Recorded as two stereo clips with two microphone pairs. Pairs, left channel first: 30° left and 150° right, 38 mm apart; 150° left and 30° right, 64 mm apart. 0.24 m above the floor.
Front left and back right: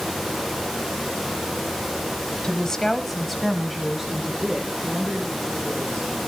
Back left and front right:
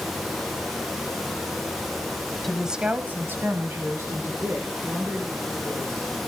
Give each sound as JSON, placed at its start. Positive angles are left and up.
{"t": 2.4, "sound": "a woman speaking", "azimuth_deg": 65, "distance_m": 1.0}